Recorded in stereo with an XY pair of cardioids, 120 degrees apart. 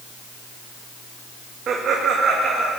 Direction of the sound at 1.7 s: 50° right.